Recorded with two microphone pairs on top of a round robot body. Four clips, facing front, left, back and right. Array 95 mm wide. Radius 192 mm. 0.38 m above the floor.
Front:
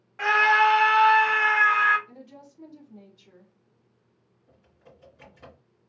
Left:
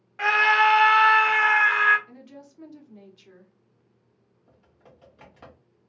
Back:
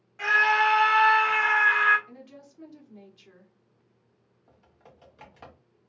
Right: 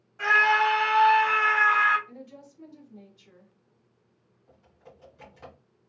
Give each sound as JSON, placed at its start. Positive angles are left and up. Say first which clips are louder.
{"t": 0.2, "sound": "a scream", "louder": "left 2 dB, front 3 dB", "azimuth_deg": 45, "distance_m": 1.2}
{"t": 2.1, "sound": "a woman speaking", "louder": "even, front 1 dB", "azimuth_deg": 140, "distance_m": 1.6}
{"t": 4.5, "sound": "typing on a keyboard", "louder": "right 2 dB, even", "azimuth_deg": 165, "distance_m": 1.8}